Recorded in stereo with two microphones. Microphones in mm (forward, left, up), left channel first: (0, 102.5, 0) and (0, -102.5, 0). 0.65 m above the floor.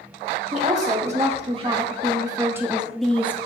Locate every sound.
0.5 s a woman speaking: 35° right (ahead or behind), 2 m; by 3.4 s 15° left (ahead or behind), 0.9 m